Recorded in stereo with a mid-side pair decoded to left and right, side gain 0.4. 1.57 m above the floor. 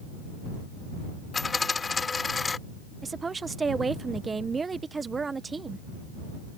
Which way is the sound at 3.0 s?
35° right.